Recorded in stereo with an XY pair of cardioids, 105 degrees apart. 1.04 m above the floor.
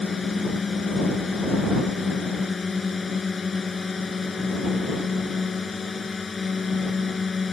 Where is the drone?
30° left.